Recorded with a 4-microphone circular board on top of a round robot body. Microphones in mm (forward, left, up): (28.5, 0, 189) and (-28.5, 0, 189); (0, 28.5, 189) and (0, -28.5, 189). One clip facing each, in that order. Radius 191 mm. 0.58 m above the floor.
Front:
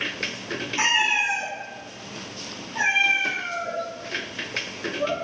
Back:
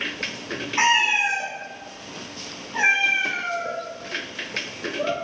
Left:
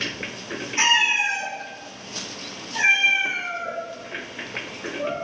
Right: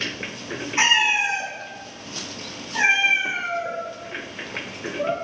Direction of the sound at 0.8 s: 155° right.